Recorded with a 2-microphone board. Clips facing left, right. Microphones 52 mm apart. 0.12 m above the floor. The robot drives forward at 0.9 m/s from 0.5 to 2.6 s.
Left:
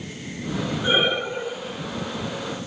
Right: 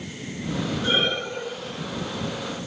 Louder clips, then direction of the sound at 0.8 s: Left 4 dB; 15° left (ahead or behind).